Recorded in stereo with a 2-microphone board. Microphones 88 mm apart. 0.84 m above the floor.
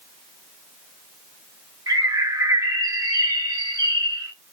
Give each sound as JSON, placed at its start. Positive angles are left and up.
{"t": 1.9, "sound": "a bird", "side_deg": -35, "distance_m": 1.1}